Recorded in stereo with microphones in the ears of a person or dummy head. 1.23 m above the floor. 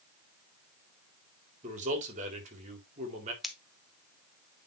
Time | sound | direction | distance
1.6 | a man speaking | 40° right (ahead or behind) | 4 m
3.4 | scissors | centre (ahead or behind) | 1.6 m